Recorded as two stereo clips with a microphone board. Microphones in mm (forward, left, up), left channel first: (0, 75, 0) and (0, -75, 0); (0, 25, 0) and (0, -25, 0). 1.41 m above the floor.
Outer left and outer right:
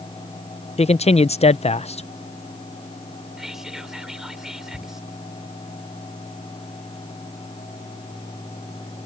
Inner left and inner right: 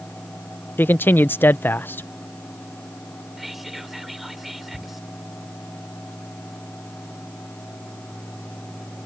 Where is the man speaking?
45° left (ahead or behind).